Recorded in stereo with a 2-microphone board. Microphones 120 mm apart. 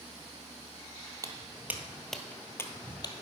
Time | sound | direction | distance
1.2 | footsteps | 30° right (ahead or behind) | 1.0 m